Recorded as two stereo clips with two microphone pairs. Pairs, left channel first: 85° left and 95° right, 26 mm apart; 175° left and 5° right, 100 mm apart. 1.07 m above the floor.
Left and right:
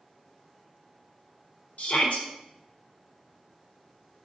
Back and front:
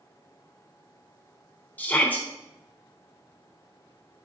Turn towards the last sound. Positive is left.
turn(degrees=100)